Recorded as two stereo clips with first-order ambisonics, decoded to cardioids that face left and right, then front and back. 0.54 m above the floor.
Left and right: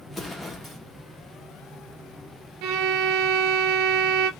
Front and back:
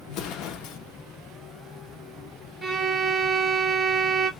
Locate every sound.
0.1 s an explosion: 10° left, 0.6 m
2.6 s a violin: 95° right, 0.6 m